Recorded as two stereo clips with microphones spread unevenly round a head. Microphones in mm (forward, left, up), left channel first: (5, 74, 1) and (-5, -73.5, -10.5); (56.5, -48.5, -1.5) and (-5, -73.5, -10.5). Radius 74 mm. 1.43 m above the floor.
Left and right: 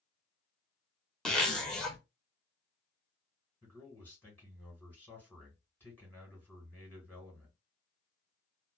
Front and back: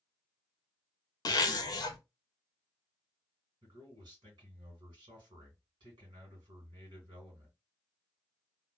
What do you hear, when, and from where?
1.2 s a zipper: straight ahead, 0.6 m
3.6 s a man speaking: 165° left, 1.6 m